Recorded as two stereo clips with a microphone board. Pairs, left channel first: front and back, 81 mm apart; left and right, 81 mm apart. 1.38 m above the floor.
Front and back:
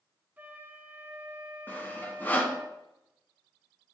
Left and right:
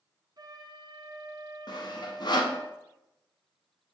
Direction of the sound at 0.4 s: 115° right.